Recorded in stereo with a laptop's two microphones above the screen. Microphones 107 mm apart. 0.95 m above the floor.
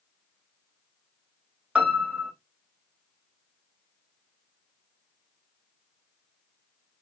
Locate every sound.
1.8 s a piano: 10° right (ahead or behind), 1.2 m